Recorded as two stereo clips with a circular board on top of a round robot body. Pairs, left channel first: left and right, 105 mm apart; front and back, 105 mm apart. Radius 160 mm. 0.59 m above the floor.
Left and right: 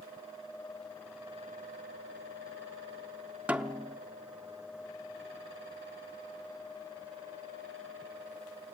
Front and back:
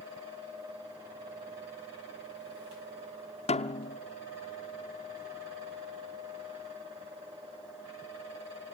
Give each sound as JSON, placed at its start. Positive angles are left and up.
{"t": 3.5, "sound": "a snare drum", "azimuth_deg": -15, "distance_m": 0.8}